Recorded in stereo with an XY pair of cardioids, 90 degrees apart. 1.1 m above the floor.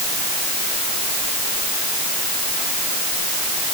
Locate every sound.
Only background noise.